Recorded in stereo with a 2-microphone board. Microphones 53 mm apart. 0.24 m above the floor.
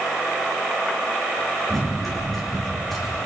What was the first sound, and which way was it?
Running footsteps, 5° left (ahead or behind).